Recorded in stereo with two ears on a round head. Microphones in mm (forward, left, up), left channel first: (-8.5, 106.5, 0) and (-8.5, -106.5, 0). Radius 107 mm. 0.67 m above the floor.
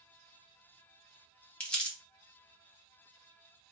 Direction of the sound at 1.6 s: 5° left (ahead or behind).